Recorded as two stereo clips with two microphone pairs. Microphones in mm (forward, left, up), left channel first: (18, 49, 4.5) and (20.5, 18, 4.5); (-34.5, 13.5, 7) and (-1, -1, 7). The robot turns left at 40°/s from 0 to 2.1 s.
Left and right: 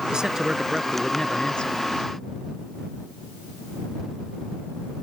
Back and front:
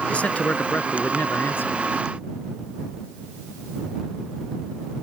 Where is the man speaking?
150° right; by 1.8 s 145° left.